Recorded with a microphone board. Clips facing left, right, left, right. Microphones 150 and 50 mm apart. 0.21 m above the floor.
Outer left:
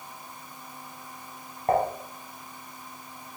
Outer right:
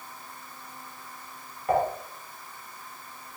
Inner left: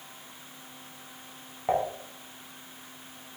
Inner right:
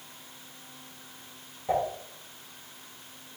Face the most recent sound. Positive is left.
turn(degrees=45)  # may be behind; listen again after turning